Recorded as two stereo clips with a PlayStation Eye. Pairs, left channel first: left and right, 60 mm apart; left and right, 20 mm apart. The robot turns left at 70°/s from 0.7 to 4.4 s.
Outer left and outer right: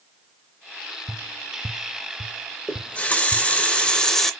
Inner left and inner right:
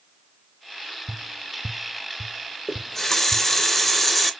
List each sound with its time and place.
1.1 s tapping: 10° right (ahead or behind), 0.6 m; by 3.5 s centre (ahead or behind), 0.6 m
2.7 s a running tap: 20° left (ahead or behind), 0.6 m; by 4.3 s 5° left (ahead or behind), 0.6 m